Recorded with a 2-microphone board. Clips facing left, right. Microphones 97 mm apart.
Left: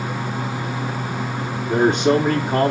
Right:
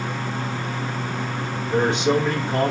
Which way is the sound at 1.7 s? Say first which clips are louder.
Left 3 dB; 45° left (ahead or behind).